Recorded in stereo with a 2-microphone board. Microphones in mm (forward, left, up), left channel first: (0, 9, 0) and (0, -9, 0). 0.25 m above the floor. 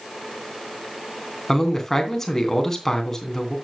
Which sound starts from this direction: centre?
A man speaking, at 1.5 s.